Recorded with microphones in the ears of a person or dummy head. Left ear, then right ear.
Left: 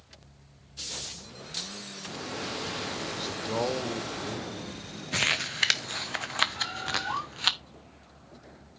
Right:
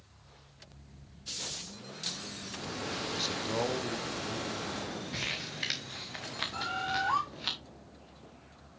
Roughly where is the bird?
Right.